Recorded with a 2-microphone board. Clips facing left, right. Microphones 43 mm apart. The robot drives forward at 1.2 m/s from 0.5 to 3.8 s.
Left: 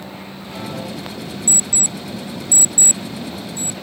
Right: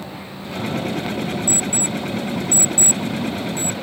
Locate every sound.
1.5 s an alarm clock: 60° left (ahead or behind); by 3.8 s 35° left (ahead or behind)